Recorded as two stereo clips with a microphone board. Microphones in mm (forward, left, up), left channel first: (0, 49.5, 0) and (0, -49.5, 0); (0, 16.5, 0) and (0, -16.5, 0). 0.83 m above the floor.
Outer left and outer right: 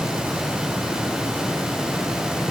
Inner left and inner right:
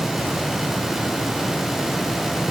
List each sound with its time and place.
Only background noise.